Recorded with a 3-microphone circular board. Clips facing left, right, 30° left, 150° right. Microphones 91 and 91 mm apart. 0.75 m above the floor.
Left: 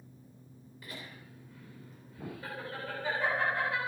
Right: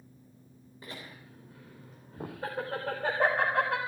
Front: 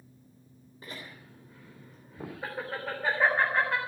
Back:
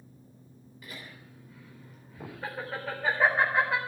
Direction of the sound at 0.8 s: 25° right.